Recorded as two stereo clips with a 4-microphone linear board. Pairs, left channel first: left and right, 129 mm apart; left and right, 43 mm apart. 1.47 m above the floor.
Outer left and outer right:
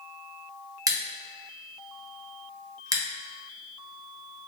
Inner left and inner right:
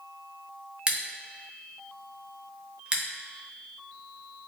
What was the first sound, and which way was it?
Scissors, 25° right (ahead or behind).